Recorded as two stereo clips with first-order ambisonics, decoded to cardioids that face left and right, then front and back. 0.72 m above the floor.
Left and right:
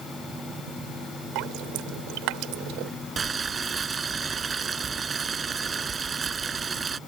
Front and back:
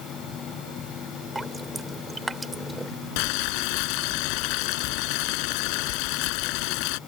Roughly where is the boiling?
Ahead.